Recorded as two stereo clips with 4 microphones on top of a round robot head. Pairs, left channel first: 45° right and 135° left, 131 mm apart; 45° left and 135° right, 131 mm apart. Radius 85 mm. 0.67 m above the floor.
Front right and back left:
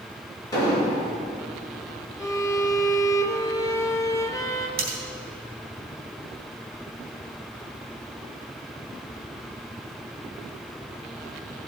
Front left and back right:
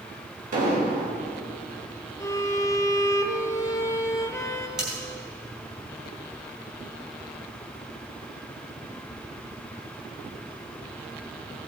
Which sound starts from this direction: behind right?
An explosion, at 0.5 s.